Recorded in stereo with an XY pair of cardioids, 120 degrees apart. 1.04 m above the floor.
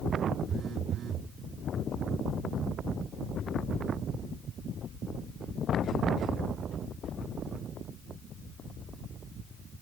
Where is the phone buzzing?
50° right, 0.6 m.